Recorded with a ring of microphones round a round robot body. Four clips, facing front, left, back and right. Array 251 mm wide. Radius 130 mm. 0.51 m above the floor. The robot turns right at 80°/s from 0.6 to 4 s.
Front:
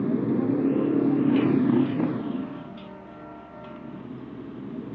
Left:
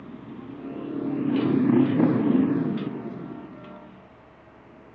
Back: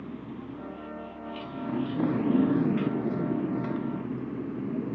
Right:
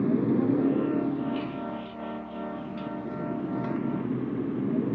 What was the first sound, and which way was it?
A motorcycle, 50° right.